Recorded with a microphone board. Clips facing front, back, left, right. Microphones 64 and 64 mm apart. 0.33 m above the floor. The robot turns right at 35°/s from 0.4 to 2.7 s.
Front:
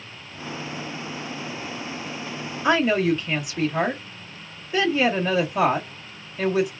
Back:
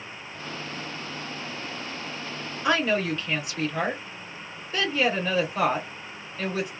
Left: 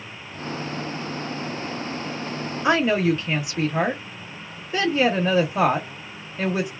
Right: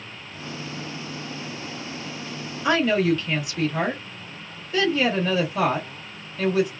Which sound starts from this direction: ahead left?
A woman speaking, at 2.6 s.